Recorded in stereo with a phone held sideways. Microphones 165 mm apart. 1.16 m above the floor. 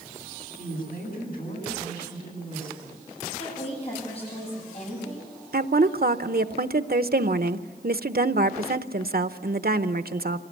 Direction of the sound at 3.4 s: 40° left (ahead or behind).